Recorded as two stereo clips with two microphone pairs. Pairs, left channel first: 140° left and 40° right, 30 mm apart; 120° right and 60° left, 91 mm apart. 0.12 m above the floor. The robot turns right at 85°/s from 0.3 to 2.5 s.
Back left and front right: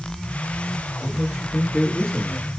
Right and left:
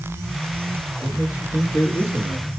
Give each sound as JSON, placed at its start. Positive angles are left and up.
{"t": 1.0, "sound": "a man speaking", "azimuth_deg": 105, "distance_m": 2.0}